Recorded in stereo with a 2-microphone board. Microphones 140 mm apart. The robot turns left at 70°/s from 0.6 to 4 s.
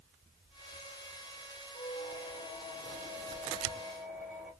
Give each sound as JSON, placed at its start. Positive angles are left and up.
{"t": 1.7, "sound": "a squeak", "azimuth_deg": 155, "distance_m": 2.5}